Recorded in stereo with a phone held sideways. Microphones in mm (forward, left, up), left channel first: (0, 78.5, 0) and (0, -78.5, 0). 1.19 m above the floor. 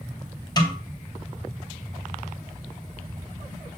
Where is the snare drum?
25° left (ahead or behind), 1.9 m.